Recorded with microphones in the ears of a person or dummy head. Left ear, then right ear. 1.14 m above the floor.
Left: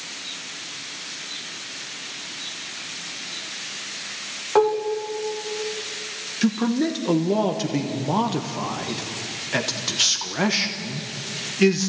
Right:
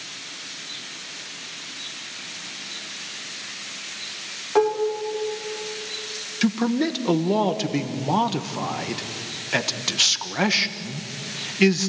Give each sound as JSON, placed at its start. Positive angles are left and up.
{"t": 4.5, "sound": "dishes clattering", "side_deg": 10, "distance_m": 2.0}
{"t": 6.4, "sound": "a man speaking", "side_deg": -25, "distance_m": 1.2}